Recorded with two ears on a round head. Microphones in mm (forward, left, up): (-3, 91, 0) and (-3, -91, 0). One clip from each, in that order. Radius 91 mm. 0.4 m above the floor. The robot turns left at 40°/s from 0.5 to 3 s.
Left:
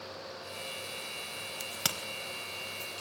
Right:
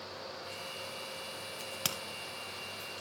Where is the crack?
15° left (ahead or behind), 0.8 m; by 2.0 s centre (ahead or behind), 0.8 m.